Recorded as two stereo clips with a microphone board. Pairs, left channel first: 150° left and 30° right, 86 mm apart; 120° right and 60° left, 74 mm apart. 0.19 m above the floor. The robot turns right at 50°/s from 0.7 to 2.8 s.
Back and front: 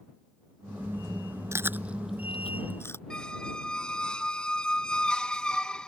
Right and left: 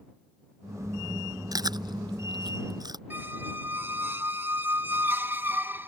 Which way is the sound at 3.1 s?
80° left.